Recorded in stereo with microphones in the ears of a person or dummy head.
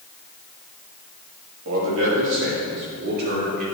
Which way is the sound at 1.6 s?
75° right (ahead or behind).